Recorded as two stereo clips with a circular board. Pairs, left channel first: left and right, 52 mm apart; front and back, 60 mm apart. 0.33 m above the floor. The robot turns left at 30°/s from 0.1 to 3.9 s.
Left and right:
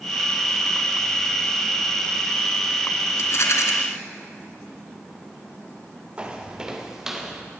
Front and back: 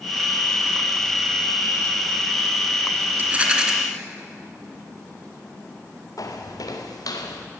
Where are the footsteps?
20° right, 3.5 m; by 7.4 s 5° right, 4 m.